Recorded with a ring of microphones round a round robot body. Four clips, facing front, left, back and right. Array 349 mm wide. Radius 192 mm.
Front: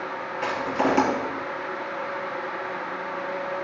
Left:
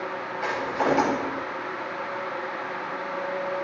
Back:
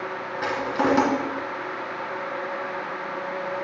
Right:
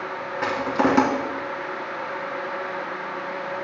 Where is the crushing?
100° right, 2 m.